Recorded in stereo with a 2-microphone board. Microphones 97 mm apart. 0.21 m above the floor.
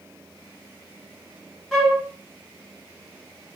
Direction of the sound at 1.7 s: 5° left (ahead or behind).